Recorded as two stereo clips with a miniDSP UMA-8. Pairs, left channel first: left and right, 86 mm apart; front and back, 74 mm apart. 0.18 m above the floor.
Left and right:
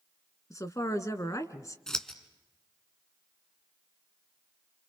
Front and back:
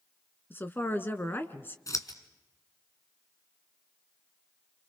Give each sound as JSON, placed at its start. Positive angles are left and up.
{"t": 0.5, "sound": "a woman speaking", "azimuth_deg": 50, "distance_m": 1.6}
{"t": 1.9, "sound": "scissors", "azimuth_deg": 10, "distance_m": 2.0}